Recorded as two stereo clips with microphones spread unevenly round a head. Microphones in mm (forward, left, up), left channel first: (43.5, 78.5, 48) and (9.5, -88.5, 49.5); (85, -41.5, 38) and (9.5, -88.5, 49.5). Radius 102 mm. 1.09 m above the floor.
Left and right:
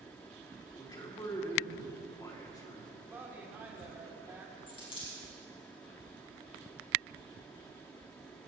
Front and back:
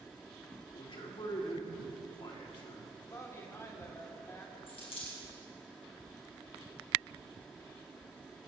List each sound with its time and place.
0.7 s a man speaking: 10° left, 3.5 m
3.1 s a woman speaking: 25° right, 3.5 m
4.7 s a dropped coin: 20° left, 5 m